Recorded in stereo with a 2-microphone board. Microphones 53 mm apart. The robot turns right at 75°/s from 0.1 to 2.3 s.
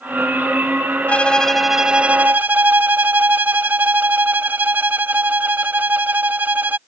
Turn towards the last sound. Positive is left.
turn(degrees=-130)